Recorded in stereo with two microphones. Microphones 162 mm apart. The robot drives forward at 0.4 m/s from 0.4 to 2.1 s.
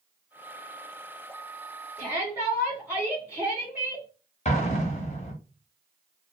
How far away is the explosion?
About 0.7 m.